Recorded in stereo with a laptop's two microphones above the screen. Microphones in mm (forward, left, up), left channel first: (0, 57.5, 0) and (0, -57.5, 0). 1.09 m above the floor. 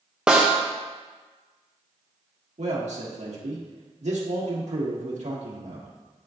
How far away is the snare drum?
About 0.7 m.